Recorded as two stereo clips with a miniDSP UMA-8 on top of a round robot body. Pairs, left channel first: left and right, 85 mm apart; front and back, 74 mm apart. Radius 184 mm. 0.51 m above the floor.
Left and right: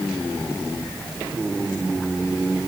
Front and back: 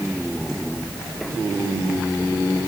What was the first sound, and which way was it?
Only background noise.